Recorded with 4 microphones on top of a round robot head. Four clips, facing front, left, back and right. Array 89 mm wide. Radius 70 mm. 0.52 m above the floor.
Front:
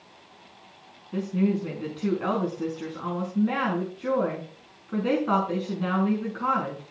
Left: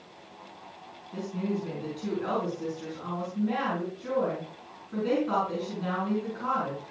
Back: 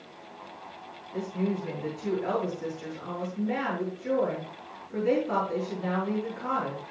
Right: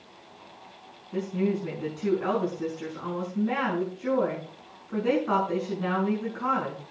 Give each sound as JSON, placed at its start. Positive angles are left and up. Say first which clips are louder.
{"t": 1.1, "sound": "a woman speaking", "louder": "right 4 dB, front 5 dB", "azimuth_deg": -25, "distance_m": 5.5}